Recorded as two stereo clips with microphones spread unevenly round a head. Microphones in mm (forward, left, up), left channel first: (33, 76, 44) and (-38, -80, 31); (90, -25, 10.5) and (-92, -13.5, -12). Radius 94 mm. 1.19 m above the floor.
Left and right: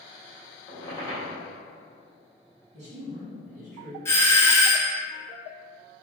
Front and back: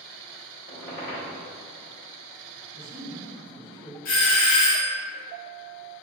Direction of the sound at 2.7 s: 160° right.